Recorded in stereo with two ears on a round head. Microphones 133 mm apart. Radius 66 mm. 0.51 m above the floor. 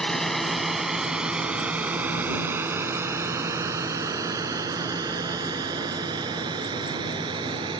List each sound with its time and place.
0.0 s a drone: 5° left (ahead or behind); by 7.8 s 30° right (ahead or behind)